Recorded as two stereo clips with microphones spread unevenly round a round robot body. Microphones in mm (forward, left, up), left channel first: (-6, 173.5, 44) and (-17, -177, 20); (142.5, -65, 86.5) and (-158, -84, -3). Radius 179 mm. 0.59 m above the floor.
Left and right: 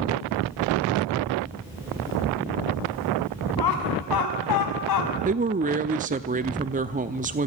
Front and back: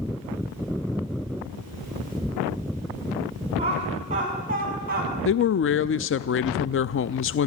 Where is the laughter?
115° left, 6 m; by 5.1 s 125° left, 5.5 m.